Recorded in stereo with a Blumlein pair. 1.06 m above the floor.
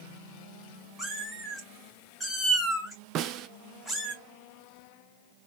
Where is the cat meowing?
5° right, 2.5 m.